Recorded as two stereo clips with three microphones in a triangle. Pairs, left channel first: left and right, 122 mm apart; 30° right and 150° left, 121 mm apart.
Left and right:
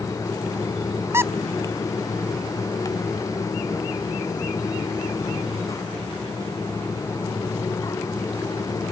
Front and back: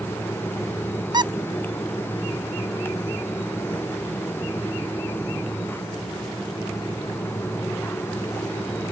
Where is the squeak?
155° right.